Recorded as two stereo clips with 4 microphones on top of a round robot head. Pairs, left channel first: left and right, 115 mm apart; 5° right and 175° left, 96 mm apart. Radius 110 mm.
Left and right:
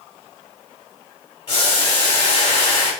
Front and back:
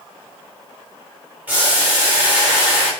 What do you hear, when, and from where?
1.5 s boiling: 105° left, 1.6 m